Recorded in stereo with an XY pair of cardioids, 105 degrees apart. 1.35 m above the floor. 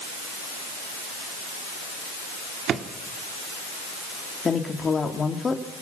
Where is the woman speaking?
35° left, 3 m.